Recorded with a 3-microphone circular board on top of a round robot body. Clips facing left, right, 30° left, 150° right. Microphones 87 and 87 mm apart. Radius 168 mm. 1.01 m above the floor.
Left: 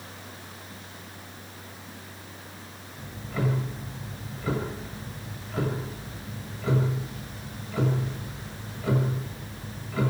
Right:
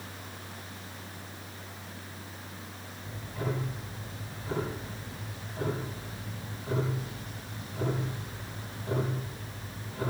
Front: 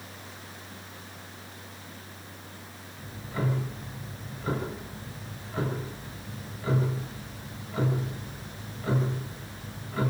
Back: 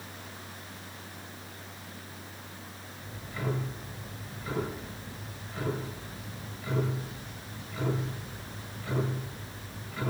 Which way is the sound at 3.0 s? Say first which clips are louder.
Left 7 dB, front 5 dB; 85° left.